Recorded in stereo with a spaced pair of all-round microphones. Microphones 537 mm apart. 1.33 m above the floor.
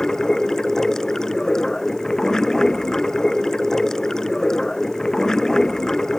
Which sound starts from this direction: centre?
Running water, at 0.0 s.